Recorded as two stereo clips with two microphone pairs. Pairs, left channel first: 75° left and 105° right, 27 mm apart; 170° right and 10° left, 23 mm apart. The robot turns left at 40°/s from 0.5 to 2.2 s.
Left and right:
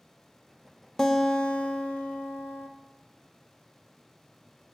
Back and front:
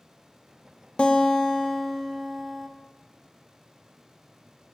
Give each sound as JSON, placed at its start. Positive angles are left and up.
{"t": 1.0, "sound": "a guitar", "azimuth_deg": 150, "distance_m": 0.6}